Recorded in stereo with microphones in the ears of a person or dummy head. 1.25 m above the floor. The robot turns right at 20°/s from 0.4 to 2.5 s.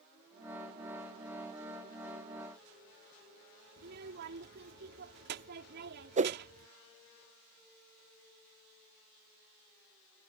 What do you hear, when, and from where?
3.8 s a child speaking: 55° right (ahead or behind)
6.2 s a whoosh: 35° right (ahead or behind)